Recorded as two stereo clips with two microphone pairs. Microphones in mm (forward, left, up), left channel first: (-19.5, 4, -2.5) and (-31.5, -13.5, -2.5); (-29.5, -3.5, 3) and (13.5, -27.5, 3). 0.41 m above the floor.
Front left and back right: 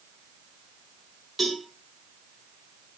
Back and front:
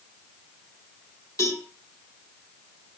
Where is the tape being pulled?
No tape being pulled in this recording.